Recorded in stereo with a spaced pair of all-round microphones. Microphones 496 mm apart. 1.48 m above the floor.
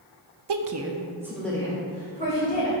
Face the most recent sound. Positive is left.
turn(degrees=15)  # may be behind; listen again after turning